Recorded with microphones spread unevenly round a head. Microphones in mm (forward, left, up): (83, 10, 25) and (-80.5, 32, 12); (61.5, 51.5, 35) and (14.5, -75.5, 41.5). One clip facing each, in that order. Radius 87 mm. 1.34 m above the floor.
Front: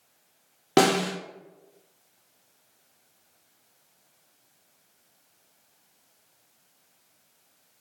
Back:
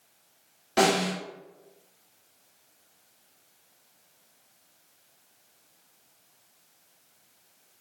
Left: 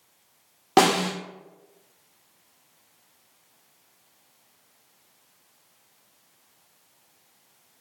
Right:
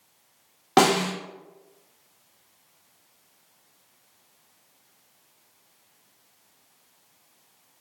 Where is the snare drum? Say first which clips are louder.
Front 3 dB, even; 15° right, 0.9 m.